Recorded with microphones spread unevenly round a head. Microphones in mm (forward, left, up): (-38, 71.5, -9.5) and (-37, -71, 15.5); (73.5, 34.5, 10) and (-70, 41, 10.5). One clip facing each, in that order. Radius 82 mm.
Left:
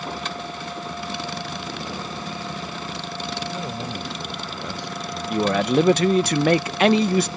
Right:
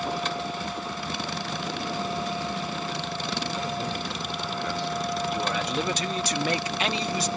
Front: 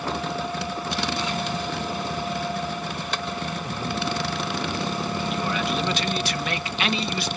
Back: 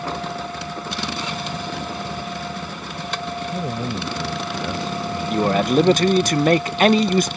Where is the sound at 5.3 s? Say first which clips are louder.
Left 8 dB, back 13 dB; 125° left.